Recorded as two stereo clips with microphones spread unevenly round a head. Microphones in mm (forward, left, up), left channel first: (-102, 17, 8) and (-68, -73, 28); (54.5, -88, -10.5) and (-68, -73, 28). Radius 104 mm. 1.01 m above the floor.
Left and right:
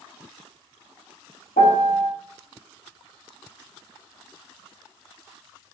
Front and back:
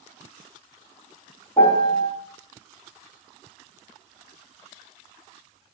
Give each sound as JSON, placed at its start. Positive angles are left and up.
{"t": 1.6, "sound": "a piano", "azimuth_deg": 70, "distance_m": 0.6}